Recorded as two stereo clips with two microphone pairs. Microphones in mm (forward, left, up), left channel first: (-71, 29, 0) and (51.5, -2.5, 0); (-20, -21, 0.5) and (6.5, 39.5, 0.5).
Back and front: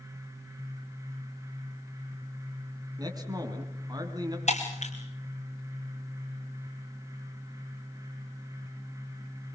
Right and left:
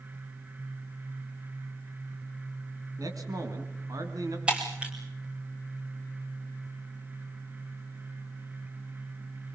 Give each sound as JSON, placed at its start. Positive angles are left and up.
{"t": 3.0, "sound": "a man speaking", "azimuth_deg": 45, "distance_m": 3.5}
{"t": 4.5, "sound": "breaking glass", "azimuth_deg": 140, "distance_m": 4.0}